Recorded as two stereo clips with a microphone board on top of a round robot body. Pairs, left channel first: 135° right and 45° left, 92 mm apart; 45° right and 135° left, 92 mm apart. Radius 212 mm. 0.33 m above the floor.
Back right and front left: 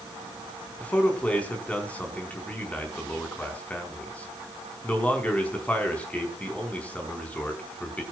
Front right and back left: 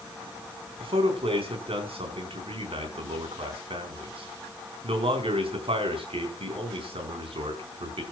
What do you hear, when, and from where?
0.8 s a man speaking: 150° left, 4.5 m